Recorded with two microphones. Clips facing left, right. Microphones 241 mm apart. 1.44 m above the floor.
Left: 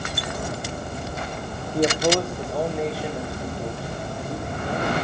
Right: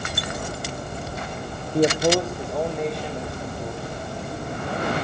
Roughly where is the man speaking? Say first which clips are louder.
Right 2 dB; right.